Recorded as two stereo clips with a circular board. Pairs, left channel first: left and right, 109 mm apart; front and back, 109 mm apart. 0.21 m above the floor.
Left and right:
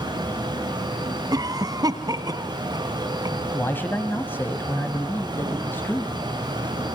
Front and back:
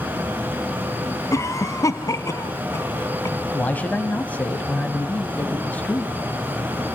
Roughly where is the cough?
Ahead right.